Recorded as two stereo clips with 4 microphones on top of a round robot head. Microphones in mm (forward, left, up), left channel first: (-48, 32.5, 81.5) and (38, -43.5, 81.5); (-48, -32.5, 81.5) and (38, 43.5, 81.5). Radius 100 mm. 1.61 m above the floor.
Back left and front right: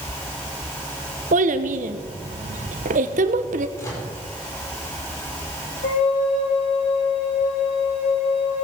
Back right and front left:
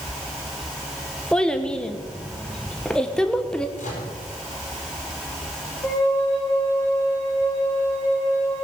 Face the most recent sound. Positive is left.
turn(degrees=155)